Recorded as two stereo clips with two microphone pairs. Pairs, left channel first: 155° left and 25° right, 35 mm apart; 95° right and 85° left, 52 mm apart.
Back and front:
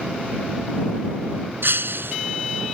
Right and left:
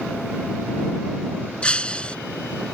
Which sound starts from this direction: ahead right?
Breaking glass, at 1.6 s.